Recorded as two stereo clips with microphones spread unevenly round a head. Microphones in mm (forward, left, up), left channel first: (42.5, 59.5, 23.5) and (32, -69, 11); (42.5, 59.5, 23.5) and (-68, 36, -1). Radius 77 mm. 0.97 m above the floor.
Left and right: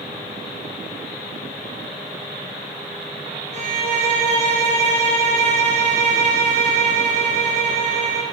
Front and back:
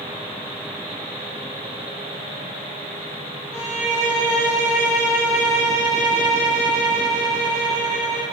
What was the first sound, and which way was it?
A violin, 65° right.